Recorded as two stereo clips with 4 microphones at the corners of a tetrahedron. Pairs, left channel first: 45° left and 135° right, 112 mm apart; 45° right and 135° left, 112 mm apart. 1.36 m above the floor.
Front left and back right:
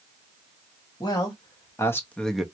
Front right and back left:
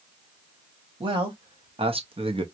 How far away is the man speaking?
About 1.5 m.